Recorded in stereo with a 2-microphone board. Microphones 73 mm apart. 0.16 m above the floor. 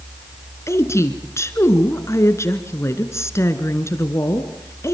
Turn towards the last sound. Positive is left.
turn(degrees=40)  # may be behind; listen again after turning